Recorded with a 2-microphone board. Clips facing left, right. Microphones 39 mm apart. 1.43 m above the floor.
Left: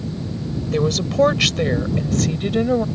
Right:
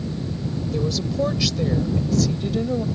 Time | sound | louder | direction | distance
0.7 | a woman speaking | left 7 dB | 65° left (ahead or behind) | ?